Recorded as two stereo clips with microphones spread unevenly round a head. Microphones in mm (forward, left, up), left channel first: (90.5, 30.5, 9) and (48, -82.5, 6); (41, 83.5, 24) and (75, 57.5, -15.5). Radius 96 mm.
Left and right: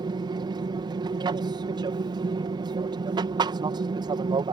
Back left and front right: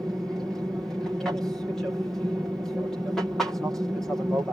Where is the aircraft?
85° right.